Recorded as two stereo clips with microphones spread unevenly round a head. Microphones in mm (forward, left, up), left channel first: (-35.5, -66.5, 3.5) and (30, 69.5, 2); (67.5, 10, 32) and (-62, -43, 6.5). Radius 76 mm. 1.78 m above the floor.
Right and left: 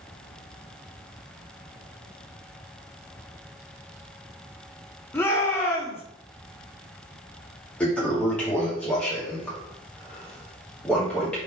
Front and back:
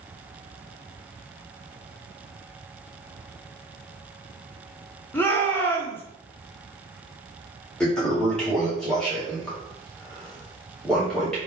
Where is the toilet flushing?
40° right, 1.1 m.